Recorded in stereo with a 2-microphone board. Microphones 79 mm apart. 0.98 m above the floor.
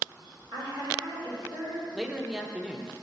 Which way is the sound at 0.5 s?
80° right.